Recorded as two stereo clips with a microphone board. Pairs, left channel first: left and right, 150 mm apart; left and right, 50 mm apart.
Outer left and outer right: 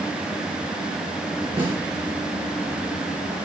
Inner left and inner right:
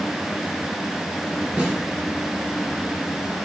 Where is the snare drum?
15° right (ahead or behind), 2 m.